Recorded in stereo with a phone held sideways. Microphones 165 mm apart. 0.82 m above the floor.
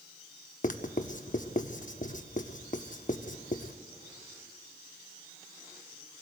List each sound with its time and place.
0.6 s writing: 50° left (ahead or behind), 0.8 m